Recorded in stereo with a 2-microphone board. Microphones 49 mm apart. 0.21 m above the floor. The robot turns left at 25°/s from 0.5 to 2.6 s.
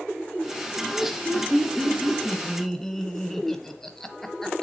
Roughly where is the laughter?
Centre.